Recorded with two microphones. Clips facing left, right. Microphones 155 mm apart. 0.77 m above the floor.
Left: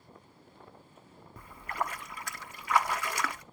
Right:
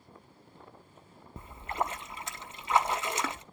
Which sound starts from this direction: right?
A splash, at 1.4 s.